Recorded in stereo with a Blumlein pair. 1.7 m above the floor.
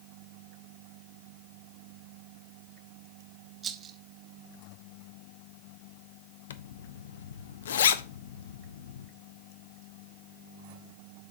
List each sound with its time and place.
3.6 s a rattle: 25° right, 1.0 m
6.5 s a zipper: 60° left, 0.6 m